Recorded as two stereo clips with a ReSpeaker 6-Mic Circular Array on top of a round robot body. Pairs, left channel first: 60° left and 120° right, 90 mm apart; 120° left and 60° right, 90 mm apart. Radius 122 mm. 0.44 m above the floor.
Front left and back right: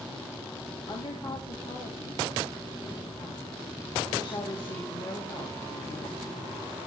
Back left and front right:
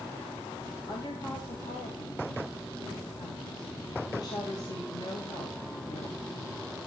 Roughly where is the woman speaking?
Left.